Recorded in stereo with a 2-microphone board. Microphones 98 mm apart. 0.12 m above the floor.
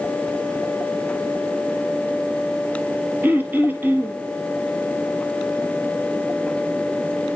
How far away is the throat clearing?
About 1.1 m.